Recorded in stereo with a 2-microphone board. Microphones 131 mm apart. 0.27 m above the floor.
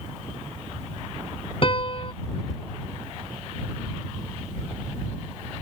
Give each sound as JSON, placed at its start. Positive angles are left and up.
{"t": 1.6, "sound": "a piano", "side_deg": 45}